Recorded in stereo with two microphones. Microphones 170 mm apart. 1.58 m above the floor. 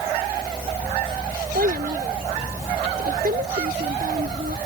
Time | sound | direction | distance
1.6 | a child speaking | 60° right (ahead or behind) | ?